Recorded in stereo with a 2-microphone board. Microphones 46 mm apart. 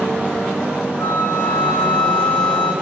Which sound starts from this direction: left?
A flute, at 1.0 s.